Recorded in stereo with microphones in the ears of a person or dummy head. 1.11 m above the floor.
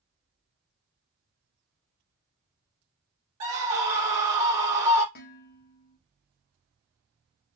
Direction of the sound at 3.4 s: 35° right (ahead or behind).